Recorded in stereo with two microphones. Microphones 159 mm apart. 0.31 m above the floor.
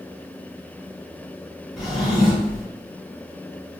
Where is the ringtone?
I don't hear a ringtone.